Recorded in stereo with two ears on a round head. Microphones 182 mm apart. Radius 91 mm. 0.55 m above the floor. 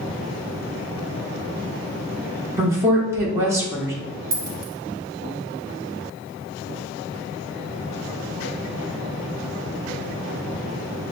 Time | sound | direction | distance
2.6 | a woman speaking | 15° right (ahead or behind) | 1.0 m
4.3 | a dropped coin | 45° right (ahead or behind) | 1.1 m